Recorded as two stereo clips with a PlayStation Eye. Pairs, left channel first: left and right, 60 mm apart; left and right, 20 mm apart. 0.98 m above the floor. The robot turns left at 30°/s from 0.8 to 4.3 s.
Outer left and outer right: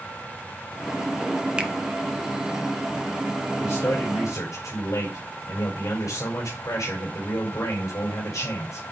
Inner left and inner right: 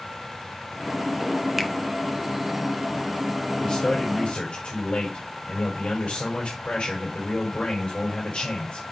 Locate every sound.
1.6 s a finger snap: 15° right (ahead or behind), 1.0 m
3.6 s a man speaking: 35° left (ahead or behind), 4.5 m; by 8.8 s 55° left (ahead or behind), 4.5 m